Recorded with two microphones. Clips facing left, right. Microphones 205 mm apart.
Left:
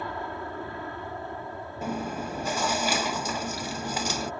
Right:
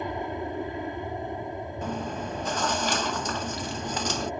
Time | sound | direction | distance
0.0 | an aircraft | 20° right (ahead or behind) | ?
1.8 | chewing | 10° left (ahead or behind) | ?